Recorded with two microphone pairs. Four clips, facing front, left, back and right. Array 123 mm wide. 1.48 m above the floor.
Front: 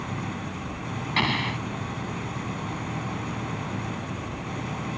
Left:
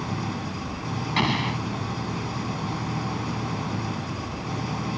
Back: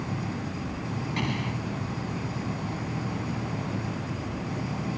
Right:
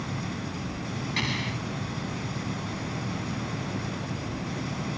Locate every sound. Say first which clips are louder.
0.0 s an engine running: left 4 dB, even; 80° left
1.2 s an explosion: left 9 dB, front 6 dB; 55° left